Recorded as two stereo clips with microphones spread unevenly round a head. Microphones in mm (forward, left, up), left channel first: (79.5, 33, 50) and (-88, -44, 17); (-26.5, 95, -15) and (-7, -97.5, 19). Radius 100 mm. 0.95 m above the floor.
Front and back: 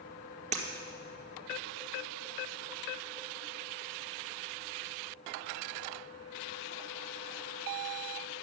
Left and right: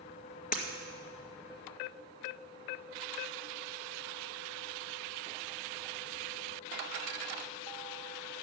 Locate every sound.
0.5 s breaking glass: 145° left, 2.0 m